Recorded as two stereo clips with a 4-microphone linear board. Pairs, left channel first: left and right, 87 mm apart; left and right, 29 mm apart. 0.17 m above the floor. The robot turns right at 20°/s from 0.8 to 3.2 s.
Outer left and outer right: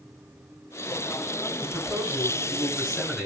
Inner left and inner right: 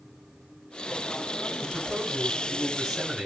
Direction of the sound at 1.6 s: 30° right.